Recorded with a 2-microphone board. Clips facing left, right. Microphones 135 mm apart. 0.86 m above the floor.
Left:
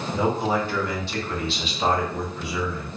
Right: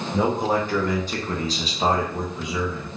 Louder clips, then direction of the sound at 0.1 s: Right 2 dB; 50° right (ahead or behind).